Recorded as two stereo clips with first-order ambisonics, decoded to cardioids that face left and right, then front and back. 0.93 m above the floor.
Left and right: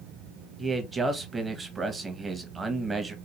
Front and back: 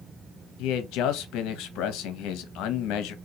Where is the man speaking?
15° right, 0.8 m.